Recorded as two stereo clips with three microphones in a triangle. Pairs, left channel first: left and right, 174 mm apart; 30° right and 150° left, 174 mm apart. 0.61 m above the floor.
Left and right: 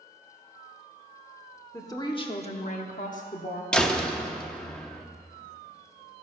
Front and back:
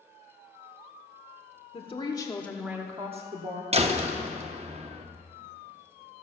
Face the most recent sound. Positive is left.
turn(degrees=175)